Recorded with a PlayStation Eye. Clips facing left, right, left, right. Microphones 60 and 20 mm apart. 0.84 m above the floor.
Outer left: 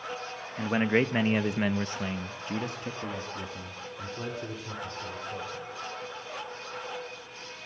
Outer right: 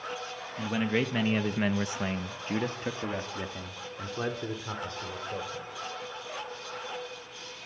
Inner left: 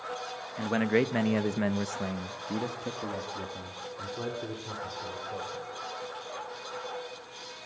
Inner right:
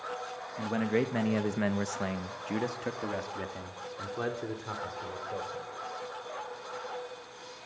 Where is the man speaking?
35° left (ahead or behind), 1.4 m; by 5.7 s 45° right (ahead or behind), 4.5 m.